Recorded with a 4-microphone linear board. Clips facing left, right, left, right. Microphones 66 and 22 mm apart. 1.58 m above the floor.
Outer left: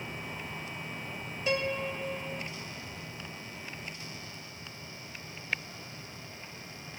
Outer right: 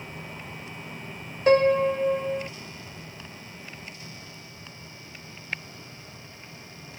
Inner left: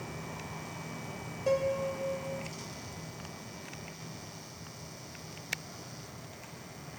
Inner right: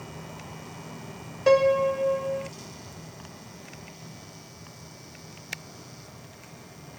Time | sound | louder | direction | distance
1.5 | a piano | outer right 13 dB, inner right 10 dB | 50° right (ahead or behind) | ?